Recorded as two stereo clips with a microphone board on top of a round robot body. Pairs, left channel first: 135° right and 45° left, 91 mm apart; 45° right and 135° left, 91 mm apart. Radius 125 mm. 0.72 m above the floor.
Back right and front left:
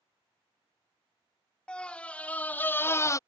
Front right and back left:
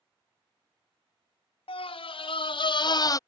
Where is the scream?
55° right; by 3.2 s 90° right.